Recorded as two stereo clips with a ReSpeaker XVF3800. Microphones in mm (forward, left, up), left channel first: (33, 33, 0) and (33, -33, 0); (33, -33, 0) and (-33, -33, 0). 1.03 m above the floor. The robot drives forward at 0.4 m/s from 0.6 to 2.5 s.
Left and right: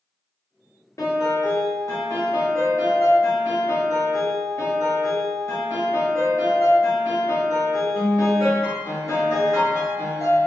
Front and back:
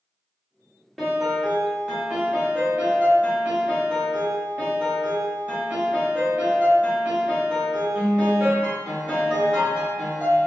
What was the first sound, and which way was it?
A piano, 90° left.